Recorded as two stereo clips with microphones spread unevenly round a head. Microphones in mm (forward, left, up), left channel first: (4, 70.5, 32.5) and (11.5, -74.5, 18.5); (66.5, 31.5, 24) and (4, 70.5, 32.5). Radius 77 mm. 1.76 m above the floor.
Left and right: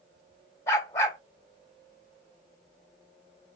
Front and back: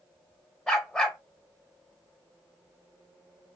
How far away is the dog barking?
About 1.4 m.